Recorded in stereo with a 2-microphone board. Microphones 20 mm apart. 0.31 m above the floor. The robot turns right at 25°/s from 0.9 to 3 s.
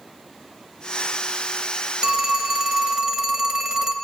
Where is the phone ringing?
40° right (ahead or behind), 0.9 m; by 4.0 s 30° right (ahead or behind), 0.9 m.